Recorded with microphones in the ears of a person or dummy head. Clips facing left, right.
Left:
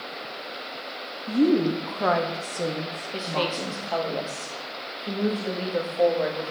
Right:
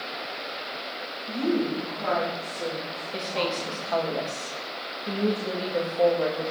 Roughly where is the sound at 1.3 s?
Left.